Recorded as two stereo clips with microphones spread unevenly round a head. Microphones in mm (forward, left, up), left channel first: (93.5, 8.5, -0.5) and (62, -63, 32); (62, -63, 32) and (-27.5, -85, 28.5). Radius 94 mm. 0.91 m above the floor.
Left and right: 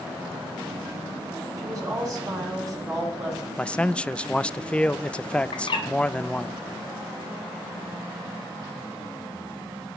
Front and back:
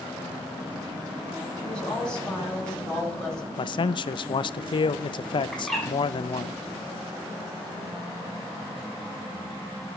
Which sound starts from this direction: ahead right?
A woman speaking, at 1.6 s.